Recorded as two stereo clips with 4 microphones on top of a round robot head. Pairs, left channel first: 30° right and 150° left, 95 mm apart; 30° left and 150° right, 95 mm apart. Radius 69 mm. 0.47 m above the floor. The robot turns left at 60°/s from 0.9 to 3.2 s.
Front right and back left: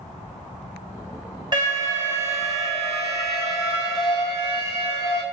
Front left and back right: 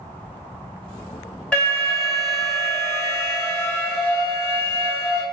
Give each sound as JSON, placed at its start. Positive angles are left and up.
{"t": 1.5, "sound": "an alarm", "azimuth_deg": 110, "distance_m": 2.5}